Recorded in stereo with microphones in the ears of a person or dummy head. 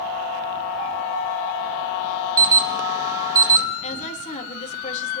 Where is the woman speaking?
35° left (ahead or behind), 3.5 m.